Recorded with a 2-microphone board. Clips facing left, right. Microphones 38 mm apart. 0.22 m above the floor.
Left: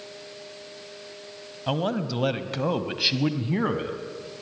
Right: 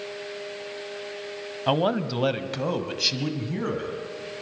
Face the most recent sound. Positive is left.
turn(degrees=30)  # may be behind; listen again after turning